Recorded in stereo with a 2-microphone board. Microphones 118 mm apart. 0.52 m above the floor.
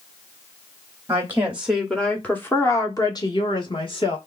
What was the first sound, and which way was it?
A woman speaking, 25° right (ahead or behind).